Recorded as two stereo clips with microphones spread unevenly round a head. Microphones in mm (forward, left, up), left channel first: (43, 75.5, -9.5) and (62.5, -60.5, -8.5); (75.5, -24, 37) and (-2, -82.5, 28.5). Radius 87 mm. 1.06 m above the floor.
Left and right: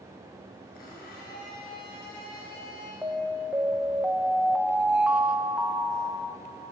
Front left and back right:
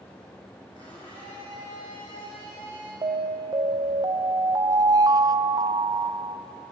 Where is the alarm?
160° right, 0.8 m.